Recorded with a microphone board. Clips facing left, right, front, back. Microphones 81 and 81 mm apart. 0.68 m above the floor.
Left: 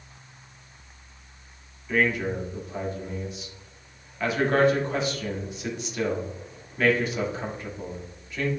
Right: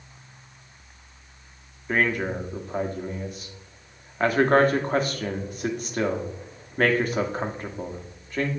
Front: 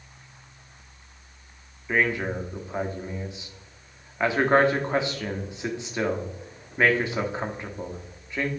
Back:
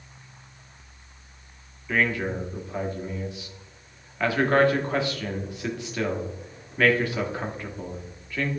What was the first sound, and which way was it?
A man speaking, 65° right.